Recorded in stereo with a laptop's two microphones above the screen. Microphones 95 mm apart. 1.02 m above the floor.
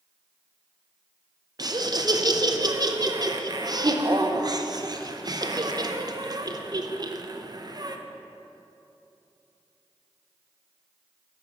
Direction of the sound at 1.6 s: 40° right (ahead or behind).